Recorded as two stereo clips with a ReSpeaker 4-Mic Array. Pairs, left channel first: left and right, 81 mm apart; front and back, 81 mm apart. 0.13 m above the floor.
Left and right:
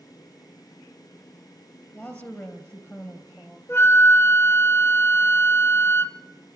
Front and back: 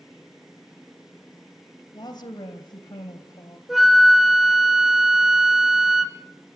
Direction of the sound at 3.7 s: 95° left.